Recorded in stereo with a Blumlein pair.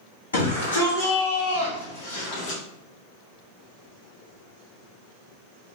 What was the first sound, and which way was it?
A shout, 70° left.